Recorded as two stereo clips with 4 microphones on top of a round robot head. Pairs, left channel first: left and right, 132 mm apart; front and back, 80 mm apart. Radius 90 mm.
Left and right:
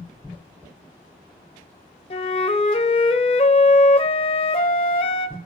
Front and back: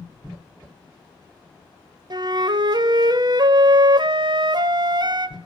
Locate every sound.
2.1 s a flute: 145° left, 0.8 m